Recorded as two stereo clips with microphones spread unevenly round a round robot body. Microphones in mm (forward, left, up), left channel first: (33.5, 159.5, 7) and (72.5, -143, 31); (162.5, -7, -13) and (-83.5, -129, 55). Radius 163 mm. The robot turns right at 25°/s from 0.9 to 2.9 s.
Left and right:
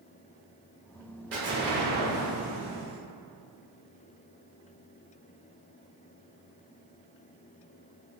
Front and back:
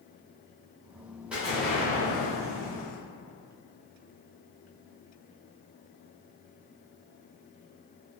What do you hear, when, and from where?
1.3 s an explosion: 50° right, 1.0 m; by 3.0 s 10° right, 1.0 m